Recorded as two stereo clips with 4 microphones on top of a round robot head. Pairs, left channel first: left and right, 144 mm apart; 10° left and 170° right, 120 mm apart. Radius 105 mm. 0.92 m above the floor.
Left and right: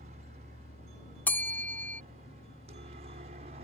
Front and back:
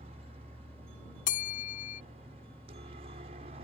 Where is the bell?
10° left.